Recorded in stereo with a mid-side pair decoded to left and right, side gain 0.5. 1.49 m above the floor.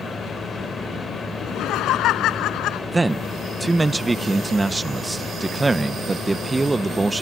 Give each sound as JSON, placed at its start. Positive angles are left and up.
{"t": 0.0, "sound": "a fan", "azimuth_deg": 25}
{"t": 1.4, "sound": "laughter", "azimuth_deg": 70}
{"t": 2.9, "sound": "a man speaking", "azimuth_deg": -20}